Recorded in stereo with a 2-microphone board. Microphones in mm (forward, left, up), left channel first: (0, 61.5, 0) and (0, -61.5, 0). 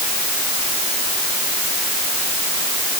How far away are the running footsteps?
I don't hear running footsteps.